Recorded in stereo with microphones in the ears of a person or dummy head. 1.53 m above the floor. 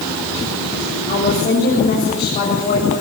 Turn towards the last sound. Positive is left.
turn(degrees=45)  # may be behind; listen again after turning